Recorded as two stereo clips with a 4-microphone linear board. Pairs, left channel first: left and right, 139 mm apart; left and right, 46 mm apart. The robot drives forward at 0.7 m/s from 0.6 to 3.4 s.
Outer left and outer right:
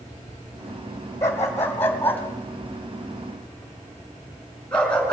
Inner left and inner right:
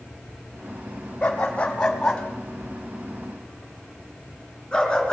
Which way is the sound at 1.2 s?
20° left (ahead or behind).